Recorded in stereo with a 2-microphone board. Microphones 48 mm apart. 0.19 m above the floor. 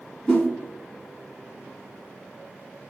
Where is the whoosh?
10° left (ahead or behind), 1.7 m.